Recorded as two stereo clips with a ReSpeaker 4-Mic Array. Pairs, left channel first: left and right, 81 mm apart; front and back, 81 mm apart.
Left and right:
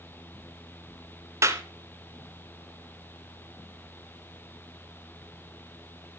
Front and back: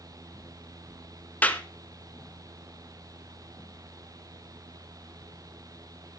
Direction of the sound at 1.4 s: 65° right.